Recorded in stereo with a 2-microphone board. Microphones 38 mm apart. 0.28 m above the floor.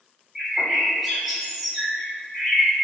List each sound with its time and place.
0.3 s a bird: 5° right (ahead or behind), 0.8 m